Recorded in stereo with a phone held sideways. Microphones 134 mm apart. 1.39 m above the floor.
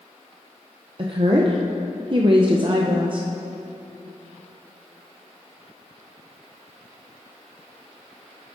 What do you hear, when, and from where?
1.0 s a woman speaking: 40° right (ahead or behind), 0.5 m